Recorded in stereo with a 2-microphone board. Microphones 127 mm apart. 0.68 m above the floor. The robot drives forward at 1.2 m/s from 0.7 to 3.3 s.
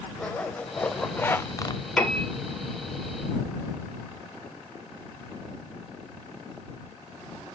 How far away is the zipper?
About 1.7 m.